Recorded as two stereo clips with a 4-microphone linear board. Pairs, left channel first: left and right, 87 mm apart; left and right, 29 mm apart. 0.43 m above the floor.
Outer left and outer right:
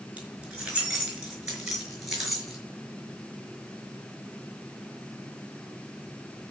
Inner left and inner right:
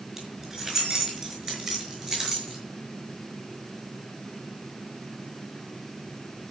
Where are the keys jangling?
15° right (ahead or behind), 4.5 m; by 2.6 s 5° right (ahead or behind), 6 m.